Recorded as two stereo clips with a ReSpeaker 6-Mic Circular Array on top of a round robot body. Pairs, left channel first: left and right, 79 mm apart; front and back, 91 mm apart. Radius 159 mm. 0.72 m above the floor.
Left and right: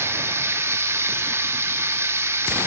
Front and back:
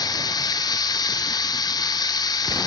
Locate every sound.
0.0 s running water: 35° right, 0.8 m